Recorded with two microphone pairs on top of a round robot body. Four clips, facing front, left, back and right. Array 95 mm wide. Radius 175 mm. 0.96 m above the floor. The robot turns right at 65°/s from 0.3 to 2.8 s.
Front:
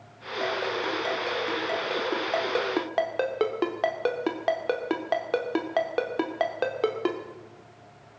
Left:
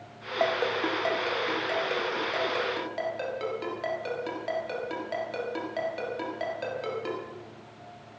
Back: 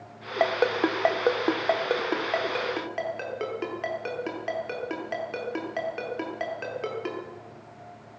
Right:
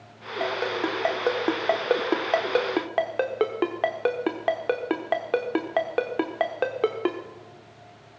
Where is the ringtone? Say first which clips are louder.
Even, back 5 dB; 155° left, 0.9 m; by 7.2 s 45° right, 0.9 m.